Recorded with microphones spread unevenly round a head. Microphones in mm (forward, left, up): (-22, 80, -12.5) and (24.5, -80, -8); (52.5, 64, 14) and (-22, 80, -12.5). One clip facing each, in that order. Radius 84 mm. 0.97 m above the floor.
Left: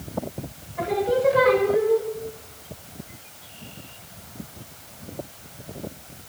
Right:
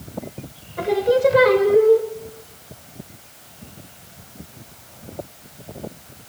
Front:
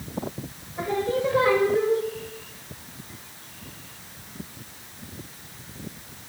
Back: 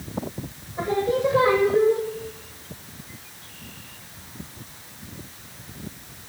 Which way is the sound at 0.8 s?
105° right.